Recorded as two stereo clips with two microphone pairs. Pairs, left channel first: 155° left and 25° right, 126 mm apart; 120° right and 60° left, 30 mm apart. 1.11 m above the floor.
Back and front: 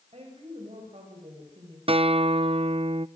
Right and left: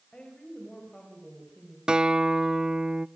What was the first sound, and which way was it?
A woman speaking, 60° right.